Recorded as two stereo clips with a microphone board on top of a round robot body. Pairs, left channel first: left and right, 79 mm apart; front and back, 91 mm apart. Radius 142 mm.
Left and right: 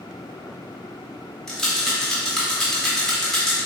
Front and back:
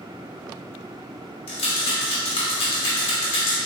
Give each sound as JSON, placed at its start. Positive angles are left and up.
{"t": 1.5, "sound": "a rattle", "azimuth_deg": 5, "distance_m": 0.7}